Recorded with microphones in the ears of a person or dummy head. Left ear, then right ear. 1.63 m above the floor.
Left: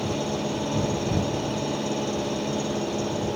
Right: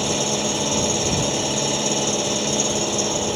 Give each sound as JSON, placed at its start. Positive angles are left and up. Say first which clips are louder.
{"t": 0.0, "sound": "an engine running", "louder": "right 6 dB", "side_deg": -65}